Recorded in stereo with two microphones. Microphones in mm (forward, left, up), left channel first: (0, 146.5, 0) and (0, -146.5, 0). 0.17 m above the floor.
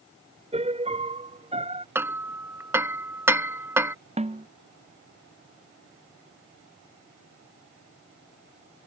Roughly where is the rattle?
I don't hear a rattle.